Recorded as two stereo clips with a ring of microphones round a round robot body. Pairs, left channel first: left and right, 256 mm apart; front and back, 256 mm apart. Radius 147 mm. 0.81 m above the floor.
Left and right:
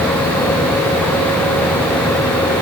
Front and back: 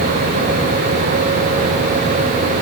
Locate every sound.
Only background noise.